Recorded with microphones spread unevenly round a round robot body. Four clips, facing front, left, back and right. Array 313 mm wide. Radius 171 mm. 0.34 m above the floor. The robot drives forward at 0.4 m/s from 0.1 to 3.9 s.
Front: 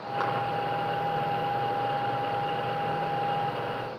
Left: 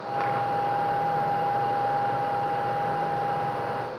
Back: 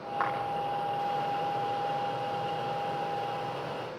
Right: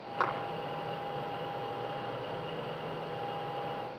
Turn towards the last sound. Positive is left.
turn(degrees=-95)